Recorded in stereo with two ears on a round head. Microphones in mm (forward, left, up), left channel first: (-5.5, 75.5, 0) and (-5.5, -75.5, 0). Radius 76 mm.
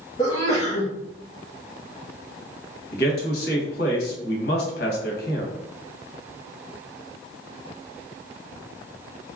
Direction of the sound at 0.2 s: 25° left (ahead or behind).